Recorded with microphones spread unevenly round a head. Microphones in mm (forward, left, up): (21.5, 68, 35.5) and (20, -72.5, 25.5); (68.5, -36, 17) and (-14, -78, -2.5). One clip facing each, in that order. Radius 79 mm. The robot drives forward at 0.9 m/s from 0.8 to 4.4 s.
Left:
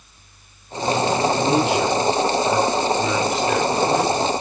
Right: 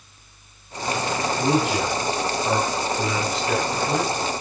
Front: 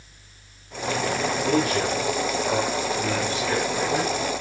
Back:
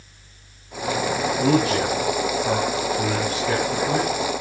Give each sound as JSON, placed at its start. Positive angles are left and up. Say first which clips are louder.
{"t": 1.4, "sound": "a man speaking", "louder": "left 3 dB, back 4 dB", "azimuth_deg": -165, "distance_m": 7.0}